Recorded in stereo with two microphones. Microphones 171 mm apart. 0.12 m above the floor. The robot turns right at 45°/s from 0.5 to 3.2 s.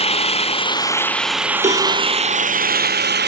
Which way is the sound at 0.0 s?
140° left.